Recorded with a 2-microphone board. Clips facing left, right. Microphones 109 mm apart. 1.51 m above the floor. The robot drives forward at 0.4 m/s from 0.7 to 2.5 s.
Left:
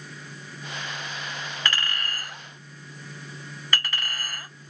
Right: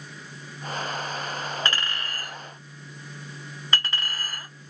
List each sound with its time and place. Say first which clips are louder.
1.6 s a clink: even; 30° right (ahead or behind), 1.7 m; by 4.5 s 25° right (ahead or behind), 1.9 m